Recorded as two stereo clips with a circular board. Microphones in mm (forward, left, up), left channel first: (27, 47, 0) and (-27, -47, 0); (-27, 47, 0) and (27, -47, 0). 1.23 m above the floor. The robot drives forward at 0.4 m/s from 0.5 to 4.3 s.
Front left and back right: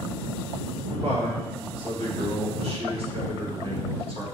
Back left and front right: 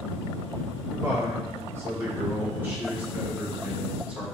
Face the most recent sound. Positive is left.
turn(degrees=-140)